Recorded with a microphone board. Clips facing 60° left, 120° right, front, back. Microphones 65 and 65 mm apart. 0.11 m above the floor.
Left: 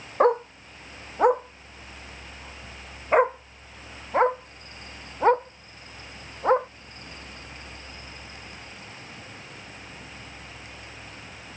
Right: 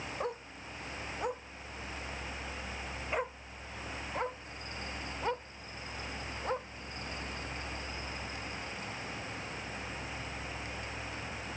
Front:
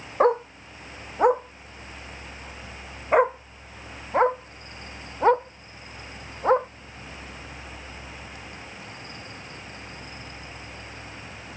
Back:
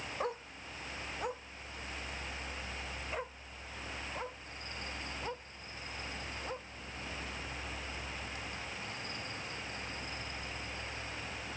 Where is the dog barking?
35° left; by 6.7 s 20° left.